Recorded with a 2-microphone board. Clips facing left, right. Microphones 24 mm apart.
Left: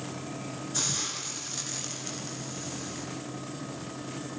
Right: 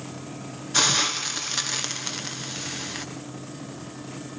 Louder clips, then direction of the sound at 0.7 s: Right 11 dB; 50° right (ahead or behind).